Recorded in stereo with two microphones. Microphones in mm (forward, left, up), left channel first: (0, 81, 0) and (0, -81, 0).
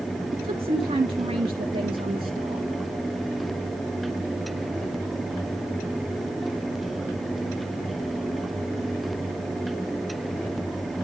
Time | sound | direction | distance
0.3 | a woman speaking | 40° right (ahead or behind) | 1.5 m